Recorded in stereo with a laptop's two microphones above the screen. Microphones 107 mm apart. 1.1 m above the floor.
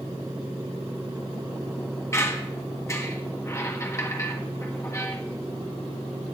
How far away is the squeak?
About 1.2 m.